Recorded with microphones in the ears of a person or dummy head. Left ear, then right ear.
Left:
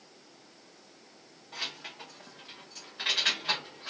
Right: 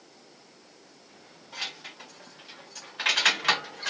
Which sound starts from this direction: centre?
Keys jangling, at 1.5 s.